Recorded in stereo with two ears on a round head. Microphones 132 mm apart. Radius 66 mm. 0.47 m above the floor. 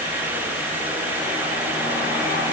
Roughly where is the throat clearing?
No throat clearing in this recording.